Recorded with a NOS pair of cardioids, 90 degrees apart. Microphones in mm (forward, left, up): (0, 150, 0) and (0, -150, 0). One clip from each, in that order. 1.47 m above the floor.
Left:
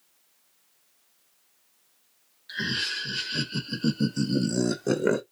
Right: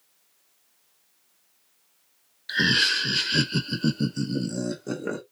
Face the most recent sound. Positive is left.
turn(degrees=45)